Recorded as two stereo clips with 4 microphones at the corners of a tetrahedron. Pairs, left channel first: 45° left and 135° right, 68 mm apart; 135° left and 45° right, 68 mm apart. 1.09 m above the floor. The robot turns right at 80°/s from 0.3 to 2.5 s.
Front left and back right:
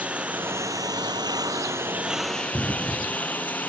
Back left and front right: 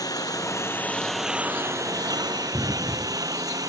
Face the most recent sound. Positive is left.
turn(degrees=-20)